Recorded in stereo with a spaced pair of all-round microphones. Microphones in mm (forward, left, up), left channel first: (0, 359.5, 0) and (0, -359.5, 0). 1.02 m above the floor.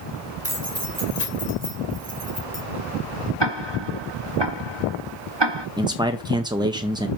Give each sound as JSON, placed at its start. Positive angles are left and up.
{"t": 0.4, "sound": "keys jangling", "side_deg": 20, "distance_m": 3.0}
{"t": 3.4, "sound": "ticking", "side_deg": -40, "distance_m": 0.9}
{"t": 5.8, "sound": "a man speaking", "side_deg": -5, "distance_m": 0.6}